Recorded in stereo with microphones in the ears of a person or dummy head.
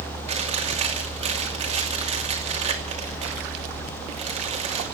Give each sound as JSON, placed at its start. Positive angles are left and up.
{"t": 0.3, "sound": "chewing", "side_deg": -40, "distance_m": 2.5}